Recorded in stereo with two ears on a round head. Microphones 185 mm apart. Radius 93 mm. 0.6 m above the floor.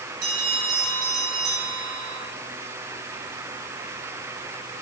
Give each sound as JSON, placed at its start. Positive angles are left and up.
{"t": 0.2, "sound": "a bell", "side_deg": -85, "distance_m": 9.5}